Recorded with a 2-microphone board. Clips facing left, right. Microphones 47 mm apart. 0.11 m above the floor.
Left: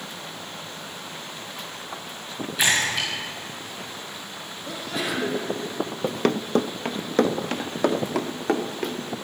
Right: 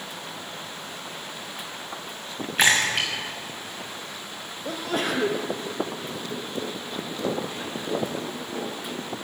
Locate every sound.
2.6 s a splash: 45° right (ahead or behind), 5 m
4.7 s a sneeze: 50° right (ahead or behind), 3.5 m
6.0 s running footsteps: 70° left (ahead or behind), 0.7 m; by 9.0 s 75° left (ahead or behind), 2.5 m